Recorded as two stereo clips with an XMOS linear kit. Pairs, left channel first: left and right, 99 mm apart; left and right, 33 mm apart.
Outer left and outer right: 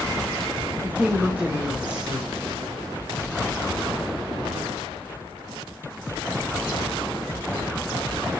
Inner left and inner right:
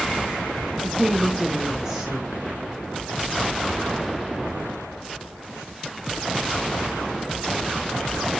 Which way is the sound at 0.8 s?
15° right (ahead or behind).